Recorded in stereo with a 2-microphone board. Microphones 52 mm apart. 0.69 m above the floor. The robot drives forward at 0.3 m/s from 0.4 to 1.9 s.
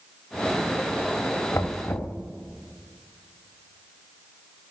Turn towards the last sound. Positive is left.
turn(degrees=55)  # may be behind; listen again after turning